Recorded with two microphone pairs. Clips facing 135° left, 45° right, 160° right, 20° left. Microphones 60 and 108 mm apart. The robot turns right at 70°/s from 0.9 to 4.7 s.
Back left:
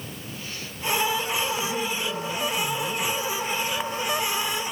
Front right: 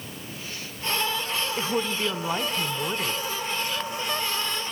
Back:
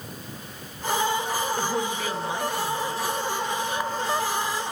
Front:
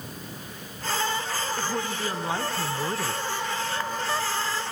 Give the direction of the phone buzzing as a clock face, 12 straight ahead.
No phone buzzing in this recording.